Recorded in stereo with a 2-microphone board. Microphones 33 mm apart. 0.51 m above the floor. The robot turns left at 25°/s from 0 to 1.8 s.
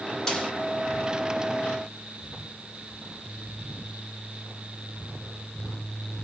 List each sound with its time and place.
0.3 s a snare drum: 20° left (ahead or behind), 1.1 m; by 0.5 s 15° left (ahead or behind), 1.1 m